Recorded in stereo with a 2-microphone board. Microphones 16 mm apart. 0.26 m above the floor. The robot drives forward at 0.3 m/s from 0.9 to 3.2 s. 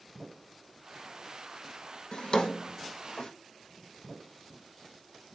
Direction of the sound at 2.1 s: 75° left (ahead or behind).